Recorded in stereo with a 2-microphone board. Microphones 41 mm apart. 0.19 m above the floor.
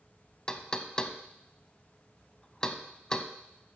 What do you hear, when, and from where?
0.5 s knocking: 20° left (ahead or behind), 0.7 m